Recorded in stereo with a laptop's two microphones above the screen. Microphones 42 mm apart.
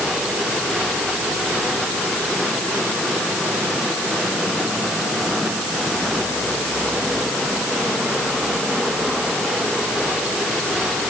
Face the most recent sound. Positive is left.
No sound to turn to.